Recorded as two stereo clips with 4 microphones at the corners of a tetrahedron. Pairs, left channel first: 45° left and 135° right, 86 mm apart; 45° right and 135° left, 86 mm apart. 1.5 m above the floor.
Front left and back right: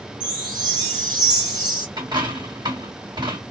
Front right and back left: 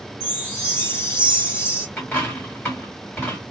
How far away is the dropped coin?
About 2 m.